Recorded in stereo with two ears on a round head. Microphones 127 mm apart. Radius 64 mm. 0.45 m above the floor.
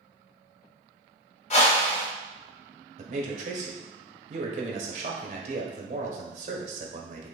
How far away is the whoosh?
About 1.1 m.